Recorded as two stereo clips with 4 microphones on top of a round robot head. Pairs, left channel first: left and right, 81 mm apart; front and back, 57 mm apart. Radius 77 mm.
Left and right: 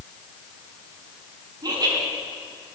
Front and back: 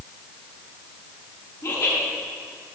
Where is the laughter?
45° right, 6 m.